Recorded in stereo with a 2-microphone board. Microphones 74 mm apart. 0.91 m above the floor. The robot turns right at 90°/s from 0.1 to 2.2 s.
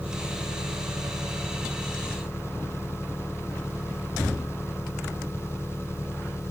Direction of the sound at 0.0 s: 155° right.